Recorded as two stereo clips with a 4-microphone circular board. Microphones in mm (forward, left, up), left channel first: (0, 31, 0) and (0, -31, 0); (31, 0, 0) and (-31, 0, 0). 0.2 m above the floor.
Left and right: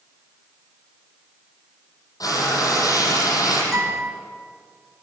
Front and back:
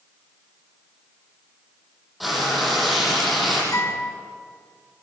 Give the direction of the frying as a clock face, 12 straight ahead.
9 o'clock.